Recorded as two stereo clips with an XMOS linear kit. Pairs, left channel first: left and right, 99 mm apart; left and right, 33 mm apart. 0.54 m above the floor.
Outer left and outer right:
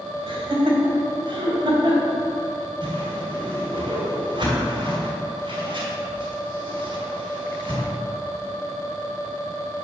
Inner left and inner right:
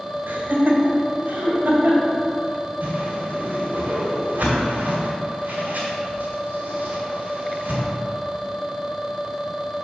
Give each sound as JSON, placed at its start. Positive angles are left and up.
{"t": 0.3, "sound": "laughter", "side_deg": -65, "distance_m": 1.7}
{"t": 2.8, "sound": "a whoosh", "side_deg": -55, "distance_m": 2.0}